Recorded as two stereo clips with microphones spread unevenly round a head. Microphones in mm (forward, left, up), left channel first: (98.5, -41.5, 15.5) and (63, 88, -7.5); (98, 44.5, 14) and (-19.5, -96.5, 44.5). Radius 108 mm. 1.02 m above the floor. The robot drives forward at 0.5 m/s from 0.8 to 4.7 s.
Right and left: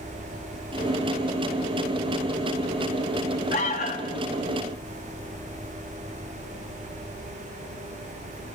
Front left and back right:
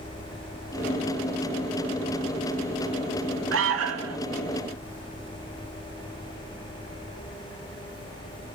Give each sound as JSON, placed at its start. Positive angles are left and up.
{"t": 3.5, "sound": "an alarm", "azimuth_deg": -135, "distance_m": 1.9}